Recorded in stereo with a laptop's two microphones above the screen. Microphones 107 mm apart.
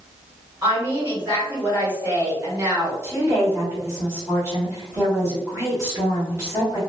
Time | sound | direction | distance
0.6 | a woman speaking | 20° right (ahead or behind) | 1.6 m
3.0 | a woman speaking | 25° right (ahead or behind) | 1.7 m